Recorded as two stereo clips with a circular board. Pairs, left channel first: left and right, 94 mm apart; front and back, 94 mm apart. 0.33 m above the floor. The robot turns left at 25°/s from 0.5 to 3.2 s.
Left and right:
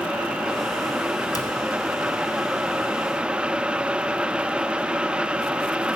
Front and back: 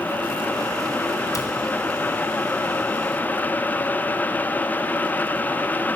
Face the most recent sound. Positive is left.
turn(degrees=0)